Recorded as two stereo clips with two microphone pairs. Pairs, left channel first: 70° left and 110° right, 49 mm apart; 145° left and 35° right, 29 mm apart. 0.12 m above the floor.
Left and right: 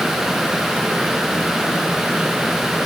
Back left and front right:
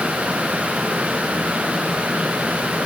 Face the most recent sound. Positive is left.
No sound to turn to.